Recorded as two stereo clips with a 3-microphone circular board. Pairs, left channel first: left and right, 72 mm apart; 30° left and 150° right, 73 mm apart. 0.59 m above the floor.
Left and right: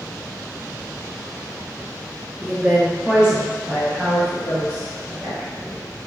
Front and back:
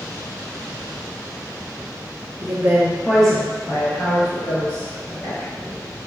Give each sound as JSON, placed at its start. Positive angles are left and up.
{"t": 2.4, "sound": "a woman speaking", "azimuth_deg": -170, "distance_m": 0.7}